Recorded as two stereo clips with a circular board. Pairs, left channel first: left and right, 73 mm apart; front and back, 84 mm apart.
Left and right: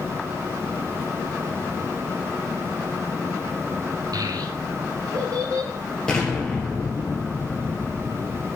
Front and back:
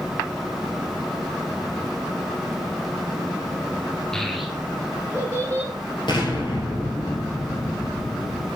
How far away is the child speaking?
About 1.3 m.